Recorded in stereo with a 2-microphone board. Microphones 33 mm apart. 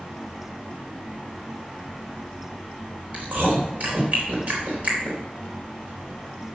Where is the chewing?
55° right (ahead or behind), 3.5 m.